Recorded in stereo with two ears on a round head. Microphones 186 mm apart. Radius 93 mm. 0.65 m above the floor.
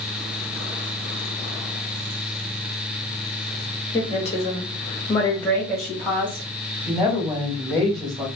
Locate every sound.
3.9 s a woman speaking: 35° left (ahead or behind), 1.3 m; by 6.5 s 10° right (ahead or behind), 1.5 m
6.9 s a woman speaking: 25° right (ahead or behind), 1.7 m